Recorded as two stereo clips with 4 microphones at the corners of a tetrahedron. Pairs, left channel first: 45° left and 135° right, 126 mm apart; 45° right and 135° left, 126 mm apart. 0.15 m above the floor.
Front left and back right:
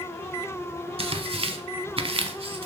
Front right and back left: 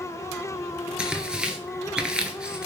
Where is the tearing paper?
145° right, 0.5 m.